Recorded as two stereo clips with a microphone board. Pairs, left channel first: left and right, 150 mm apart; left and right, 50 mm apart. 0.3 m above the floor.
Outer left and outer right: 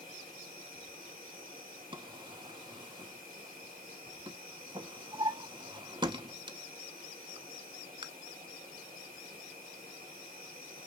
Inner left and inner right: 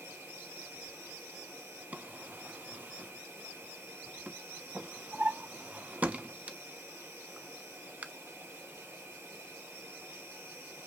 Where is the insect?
65° right (ahead or behind), 4 m.